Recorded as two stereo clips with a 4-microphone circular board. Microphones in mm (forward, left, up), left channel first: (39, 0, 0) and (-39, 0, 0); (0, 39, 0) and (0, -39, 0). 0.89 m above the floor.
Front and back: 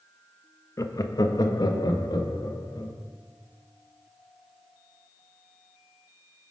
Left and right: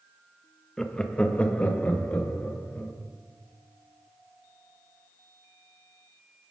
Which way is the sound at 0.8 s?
10° left.